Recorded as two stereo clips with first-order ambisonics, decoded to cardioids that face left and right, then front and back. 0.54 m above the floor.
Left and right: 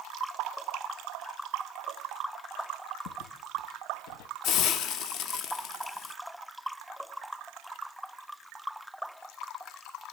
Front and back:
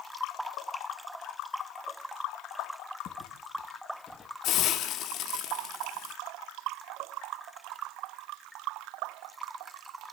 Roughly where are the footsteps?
Ahead left.